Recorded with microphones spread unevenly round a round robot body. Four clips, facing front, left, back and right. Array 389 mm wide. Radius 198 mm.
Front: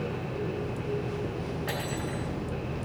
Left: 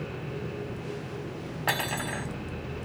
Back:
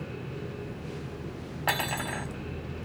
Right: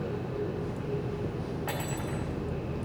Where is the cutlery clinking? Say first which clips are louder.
Left 3 dB, back 2 dB; 140° left, 1.7 m.